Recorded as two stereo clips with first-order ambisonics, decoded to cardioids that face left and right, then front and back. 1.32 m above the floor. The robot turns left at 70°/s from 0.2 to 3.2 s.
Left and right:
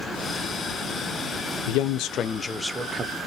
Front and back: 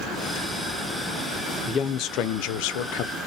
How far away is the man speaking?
About 0.5 m.